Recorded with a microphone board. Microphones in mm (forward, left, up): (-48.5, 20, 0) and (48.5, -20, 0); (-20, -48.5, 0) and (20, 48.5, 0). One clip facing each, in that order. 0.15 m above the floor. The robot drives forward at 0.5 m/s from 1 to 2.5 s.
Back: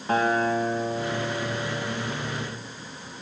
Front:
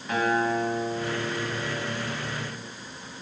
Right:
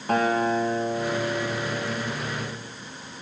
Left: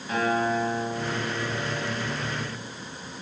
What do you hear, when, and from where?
0.1 s a guitar: 150° right, 5 m; by 2.6 s 155° right, 5.5 m